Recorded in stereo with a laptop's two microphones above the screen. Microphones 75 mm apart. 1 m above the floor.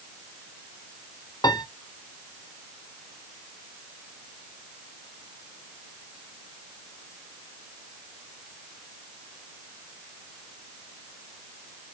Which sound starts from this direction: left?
A piano, at 1.4 s.